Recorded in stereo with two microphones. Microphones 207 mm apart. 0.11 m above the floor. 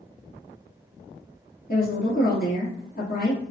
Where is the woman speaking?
50° left (ahead or behind), 1.5 m.